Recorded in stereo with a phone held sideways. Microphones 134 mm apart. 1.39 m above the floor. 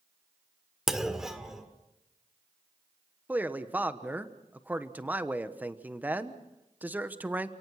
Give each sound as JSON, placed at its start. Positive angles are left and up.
{"t": 0.9, "sound": "a clunk", "side_deg": -5, "distance_m": 1.7}
{"t": 3.3, "sound": "a man speaking", "side_deg": -15, "distance_m": 1.1}